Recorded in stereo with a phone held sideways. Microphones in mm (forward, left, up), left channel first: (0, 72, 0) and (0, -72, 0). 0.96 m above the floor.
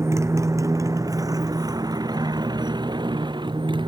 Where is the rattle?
No rattle in this recording.